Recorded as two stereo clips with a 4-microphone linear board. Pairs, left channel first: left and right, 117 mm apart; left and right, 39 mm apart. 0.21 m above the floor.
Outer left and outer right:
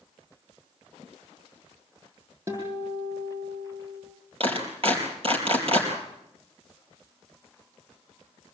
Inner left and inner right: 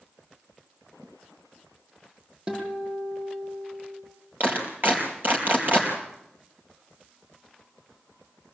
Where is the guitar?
25° right (ahead or behind), 8.5 m.